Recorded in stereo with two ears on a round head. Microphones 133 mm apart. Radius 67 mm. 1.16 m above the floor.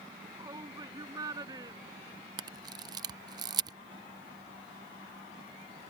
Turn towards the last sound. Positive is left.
turn(degrees=-30)  # may be behind; listen again after turning